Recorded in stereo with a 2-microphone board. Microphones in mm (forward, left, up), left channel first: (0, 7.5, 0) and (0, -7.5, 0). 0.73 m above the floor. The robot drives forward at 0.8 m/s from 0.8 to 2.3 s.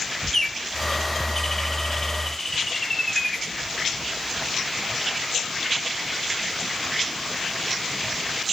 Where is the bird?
20° left (ahead or behind), 1.1 m; by 3.5 s 15° left (ahead or behind), 1.7 m.